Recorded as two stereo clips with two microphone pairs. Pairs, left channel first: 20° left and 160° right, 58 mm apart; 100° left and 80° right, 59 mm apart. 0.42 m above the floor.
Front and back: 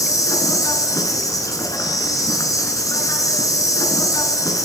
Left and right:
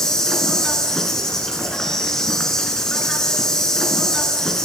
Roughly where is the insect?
Ahead.